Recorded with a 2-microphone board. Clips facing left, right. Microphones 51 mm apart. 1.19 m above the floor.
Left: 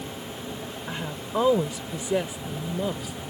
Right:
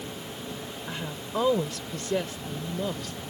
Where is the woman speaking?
10° left (ahead or behind).